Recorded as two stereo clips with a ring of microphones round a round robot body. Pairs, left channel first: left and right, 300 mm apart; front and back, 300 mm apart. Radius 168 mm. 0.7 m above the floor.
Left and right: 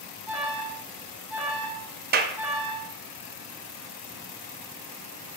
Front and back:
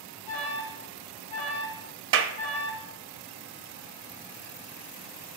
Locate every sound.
0.3 s an alarm: 5° right, 4 m
2.1 s a clap: 140° right, 0.5 m